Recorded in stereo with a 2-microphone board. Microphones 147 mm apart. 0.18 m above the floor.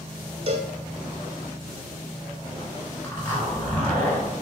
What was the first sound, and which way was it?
A cowbell, 40° right (ahead or behind).